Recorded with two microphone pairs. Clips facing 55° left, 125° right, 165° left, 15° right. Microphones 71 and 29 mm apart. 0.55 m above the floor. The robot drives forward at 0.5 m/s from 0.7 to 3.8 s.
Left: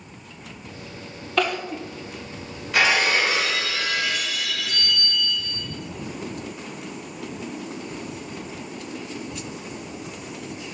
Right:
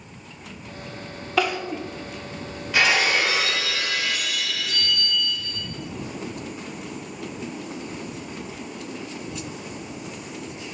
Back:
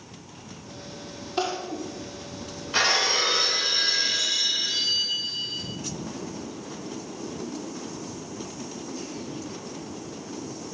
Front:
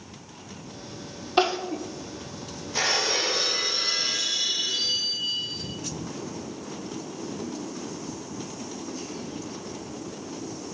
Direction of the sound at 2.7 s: 150° left.